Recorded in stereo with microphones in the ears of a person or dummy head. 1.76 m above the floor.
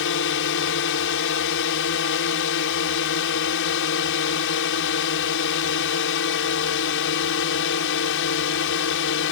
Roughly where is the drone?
Left.